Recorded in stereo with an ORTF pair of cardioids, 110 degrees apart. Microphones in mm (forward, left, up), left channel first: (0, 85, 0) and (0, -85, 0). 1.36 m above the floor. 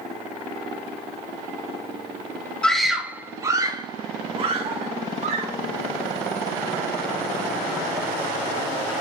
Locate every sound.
2.6 s a scream: 5° left, 1.7 m; by 5.5 s 45° right, 3.5 m